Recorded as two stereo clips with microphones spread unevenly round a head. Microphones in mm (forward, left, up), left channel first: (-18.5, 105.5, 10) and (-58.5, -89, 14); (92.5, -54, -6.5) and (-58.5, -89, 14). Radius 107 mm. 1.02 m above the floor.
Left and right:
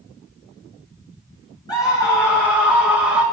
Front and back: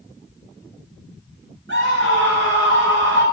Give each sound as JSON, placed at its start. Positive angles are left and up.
{"t": 1.7, "sound": "a scream", "azimuth_deg": 150, "distance_m": 4.0}